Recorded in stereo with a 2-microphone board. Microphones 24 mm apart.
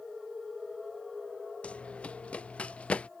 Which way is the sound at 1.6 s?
65° left (ahead or behind).